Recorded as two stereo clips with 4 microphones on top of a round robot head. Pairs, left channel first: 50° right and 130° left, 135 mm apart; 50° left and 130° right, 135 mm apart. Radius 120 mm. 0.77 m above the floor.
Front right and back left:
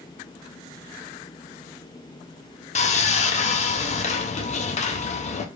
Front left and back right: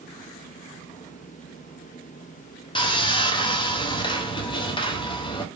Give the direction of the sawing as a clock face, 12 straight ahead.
12 o'clock.